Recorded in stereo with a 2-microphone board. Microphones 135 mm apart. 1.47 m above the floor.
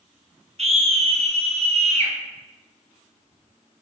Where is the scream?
50° right (ahead or behind), 0.8 m.